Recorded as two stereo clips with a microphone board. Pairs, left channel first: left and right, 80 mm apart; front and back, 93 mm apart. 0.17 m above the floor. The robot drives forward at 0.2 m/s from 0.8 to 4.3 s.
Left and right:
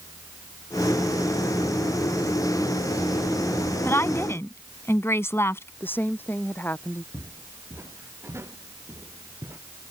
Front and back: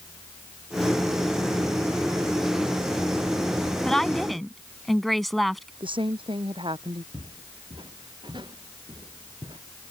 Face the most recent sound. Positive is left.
turn(degrees=-145)